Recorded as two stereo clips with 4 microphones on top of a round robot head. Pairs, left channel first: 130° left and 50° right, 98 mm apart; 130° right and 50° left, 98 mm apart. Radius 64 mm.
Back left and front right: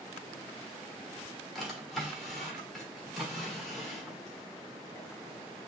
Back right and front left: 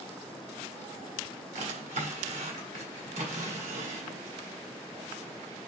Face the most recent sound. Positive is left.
turn(degrees=45)